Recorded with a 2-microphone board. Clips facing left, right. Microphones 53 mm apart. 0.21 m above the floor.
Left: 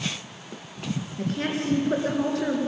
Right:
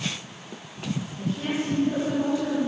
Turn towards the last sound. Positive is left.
turn(degrees=65)  # may be behind; listen again after turning